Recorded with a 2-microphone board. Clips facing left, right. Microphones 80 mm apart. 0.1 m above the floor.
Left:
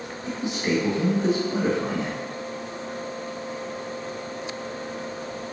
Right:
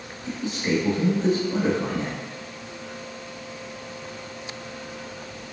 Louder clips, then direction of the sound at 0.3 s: Even; 10° left (ahead or behind).